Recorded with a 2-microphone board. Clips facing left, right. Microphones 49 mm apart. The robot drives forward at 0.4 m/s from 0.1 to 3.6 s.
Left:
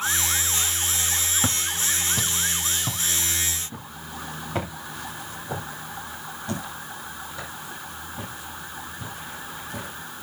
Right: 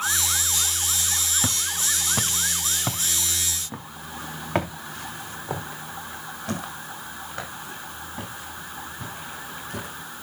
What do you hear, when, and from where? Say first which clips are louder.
1.4 s footsteps: left 1 dB; 15° left (ahead or behind), 1.1 m; by 9.9 s 75° right (ahead or behind), 11.5 m